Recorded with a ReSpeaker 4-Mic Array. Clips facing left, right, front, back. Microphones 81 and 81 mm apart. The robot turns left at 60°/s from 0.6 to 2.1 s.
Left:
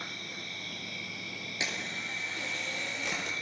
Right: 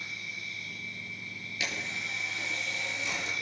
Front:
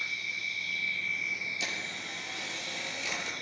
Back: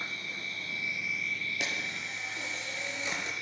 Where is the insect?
125° left, 1.3 m; by 3.4 s 35° left, 1.3 m.